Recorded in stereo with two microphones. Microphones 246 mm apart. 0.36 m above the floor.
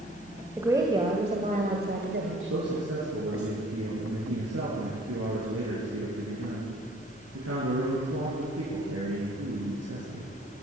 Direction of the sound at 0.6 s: 10° right (ahead or behind).